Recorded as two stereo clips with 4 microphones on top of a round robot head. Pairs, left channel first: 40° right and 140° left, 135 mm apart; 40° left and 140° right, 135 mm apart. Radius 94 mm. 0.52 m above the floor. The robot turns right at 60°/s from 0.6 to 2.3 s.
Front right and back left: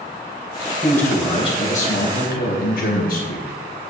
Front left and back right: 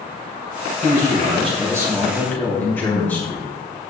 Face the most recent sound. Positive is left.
turn(degrees=-40)